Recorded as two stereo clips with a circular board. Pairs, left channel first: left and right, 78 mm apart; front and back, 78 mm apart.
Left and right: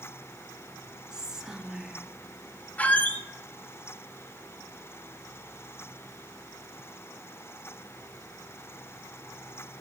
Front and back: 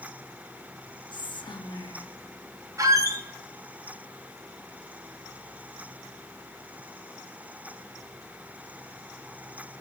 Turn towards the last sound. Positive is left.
turn(degrees=155)